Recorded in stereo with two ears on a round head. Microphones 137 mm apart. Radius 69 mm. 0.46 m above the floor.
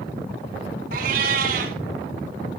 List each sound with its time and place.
0.9 s a cat meowing: 65° right (ahead or behind), 1.1 m